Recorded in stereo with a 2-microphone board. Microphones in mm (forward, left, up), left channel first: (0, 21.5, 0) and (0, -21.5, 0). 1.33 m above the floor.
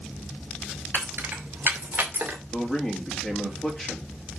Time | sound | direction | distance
0.9 | keys jangling | 55° right (ahead or behind) | 4 m
2.5 | a man speaking | 20° left (ahead or behind) | 2.5 m